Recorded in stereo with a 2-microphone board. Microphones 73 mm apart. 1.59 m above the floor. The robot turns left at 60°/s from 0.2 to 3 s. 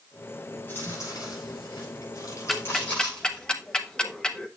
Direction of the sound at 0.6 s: 20° left (ahead or behind).